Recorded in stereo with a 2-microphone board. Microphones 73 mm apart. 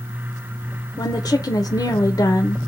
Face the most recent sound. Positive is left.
turn(degrees=70)  # may be behind; listen again after turning